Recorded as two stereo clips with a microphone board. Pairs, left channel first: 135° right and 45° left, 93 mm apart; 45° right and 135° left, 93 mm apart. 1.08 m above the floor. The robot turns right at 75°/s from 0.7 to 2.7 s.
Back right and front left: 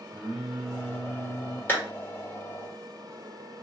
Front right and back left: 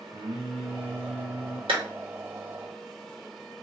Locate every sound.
0.1 s singing: 120° left, 0.8 m; by 1.6 s 175° right, 0.8 m
1.7 s a clap: 155° left, 1.4 m; by 1.8 s 165° left, 1.4 m